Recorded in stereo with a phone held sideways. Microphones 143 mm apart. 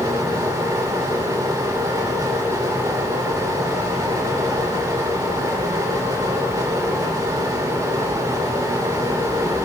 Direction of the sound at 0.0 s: 20° right (ahead or behind).